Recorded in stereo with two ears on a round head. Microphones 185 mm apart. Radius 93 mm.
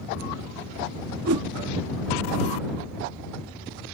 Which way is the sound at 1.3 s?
80° right.